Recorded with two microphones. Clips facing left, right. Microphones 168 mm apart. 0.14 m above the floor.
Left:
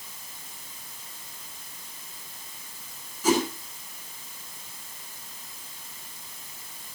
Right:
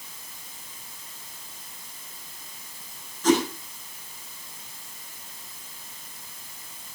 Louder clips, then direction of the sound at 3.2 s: Right 2 dB; 10° left (ahead or behind).